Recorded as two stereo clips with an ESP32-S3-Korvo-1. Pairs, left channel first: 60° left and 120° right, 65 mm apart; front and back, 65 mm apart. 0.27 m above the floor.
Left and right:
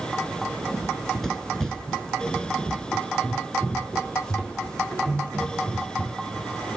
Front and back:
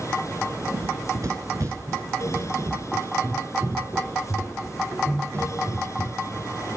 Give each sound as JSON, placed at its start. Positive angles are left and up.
{"t": 0.7, "sound": "running footsteps", "azimuth_deg": 150, "distance_m": 2.5}